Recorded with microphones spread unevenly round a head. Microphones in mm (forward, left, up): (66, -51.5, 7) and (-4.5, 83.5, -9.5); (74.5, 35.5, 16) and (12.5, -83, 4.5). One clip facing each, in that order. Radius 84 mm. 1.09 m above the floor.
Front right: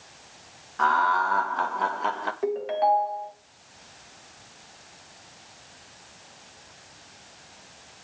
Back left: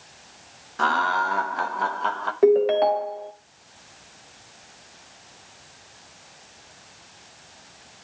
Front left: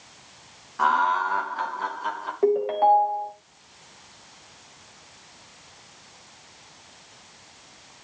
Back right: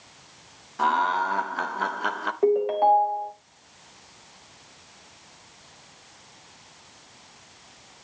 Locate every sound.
0.8 s laughter: 175° left, 1.4 m; by 2.3 s 140° right, 1.2 m
2.4 s a ringtone: 150° left, 0.9 m